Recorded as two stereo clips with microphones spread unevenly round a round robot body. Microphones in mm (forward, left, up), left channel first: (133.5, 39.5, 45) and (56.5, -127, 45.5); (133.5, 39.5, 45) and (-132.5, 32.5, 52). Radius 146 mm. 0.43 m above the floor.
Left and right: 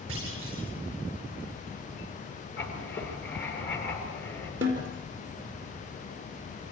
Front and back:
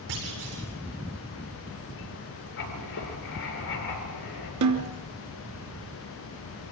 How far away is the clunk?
About 8 m.